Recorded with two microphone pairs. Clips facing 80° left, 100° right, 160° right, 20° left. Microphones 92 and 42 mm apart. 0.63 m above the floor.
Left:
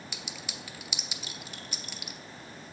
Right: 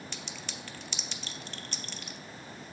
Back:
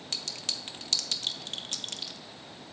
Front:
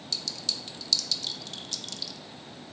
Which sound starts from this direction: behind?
A clink, at 0.1 s.